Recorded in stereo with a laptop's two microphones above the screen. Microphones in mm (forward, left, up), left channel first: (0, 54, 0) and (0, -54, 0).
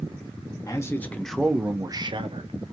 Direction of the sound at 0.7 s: 30° left (ahead or behind).